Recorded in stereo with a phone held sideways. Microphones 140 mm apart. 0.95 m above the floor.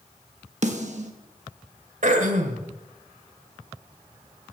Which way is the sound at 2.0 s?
65° right (ahead or behind).